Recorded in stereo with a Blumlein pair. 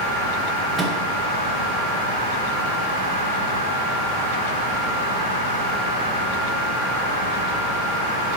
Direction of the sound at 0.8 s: 10° right.